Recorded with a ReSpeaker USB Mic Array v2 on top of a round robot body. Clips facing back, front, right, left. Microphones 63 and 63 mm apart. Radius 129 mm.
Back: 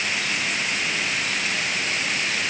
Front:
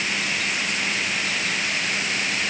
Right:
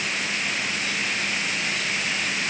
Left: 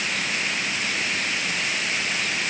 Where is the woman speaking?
I don't hear a woman speaking.